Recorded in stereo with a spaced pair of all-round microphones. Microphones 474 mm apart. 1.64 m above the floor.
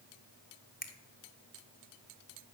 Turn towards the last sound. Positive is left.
turn(degrees=20)  # may be behind; listen again after turning